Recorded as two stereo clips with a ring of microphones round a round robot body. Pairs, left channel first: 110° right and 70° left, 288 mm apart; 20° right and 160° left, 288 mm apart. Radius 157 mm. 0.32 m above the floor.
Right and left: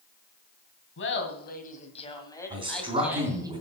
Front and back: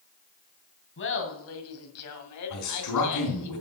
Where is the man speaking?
5° right, 3 m.